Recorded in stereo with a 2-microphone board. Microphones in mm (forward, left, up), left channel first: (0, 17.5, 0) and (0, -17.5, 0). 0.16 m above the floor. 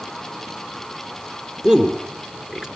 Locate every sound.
1.6 s a man speaking: 10° right (ahead or behind), 2.5 m